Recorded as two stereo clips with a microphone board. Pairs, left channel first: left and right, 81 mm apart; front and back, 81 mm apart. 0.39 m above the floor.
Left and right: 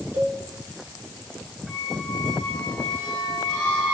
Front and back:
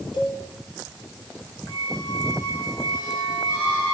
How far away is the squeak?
About 8 m.